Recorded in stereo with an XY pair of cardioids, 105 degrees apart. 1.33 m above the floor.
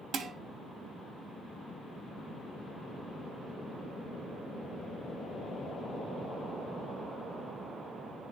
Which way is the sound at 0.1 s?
65° right.